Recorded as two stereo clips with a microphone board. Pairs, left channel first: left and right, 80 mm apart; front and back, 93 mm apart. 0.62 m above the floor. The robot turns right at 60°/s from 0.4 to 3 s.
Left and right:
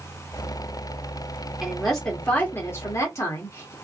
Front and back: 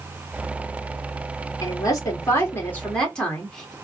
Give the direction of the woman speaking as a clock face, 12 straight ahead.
12 o'clock.